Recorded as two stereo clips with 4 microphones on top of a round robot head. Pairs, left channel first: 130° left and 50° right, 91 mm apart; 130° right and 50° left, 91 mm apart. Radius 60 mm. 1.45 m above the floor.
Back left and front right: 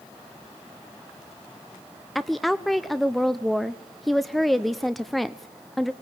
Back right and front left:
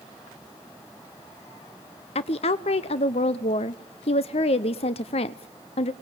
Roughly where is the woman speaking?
Behind right.